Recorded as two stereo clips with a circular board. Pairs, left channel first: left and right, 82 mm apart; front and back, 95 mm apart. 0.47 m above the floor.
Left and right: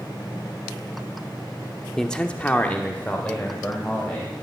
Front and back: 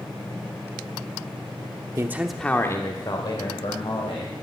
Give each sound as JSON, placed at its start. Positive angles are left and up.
{"t": 2.0, "sound": "a man speaking", "azimuth_deg": 170, "distance_m": 1.0}